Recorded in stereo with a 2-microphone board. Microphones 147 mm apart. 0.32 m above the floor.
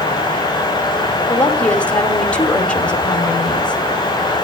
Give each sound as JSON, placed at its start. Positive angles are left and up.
{"t": 1.3, "sound": "a woman speaking", "side_deg": 10, "distance_m": 1.7}